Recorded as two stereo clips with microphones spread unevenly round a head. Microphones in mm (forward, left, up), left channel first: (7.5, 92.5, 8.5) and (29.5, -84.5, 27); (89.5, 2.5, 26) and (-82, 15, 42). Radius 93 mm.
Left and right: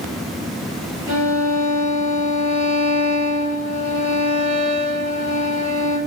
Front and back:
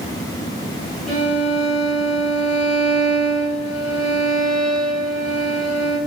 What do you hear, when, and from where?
1.1 s a violin: 90° right, 2.5 m